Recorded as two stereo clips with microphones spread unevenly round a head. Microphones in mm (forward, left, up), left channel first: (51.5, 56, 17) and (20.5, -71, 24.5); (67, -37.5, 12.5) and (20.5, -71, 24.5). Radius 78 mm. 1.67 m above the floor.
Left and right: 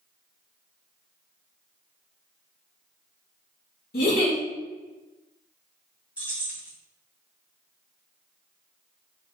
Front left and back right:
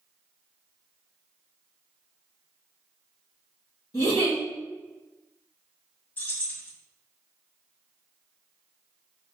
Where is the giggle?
80° left, 2.5 m.